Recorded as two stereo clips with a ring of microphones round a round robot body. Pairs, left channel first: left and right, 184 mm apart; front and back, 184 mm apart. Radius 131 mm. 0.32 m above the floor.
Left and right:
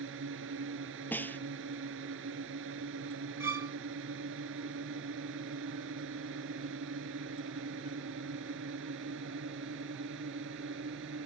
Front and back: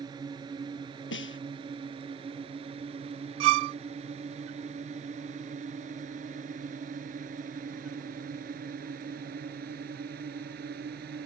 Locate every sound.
0.0 s a drone: 105° right; by 11.3 s 125° right
1.1 s a snare drum: 10° left
3.4 s a violin: 170° right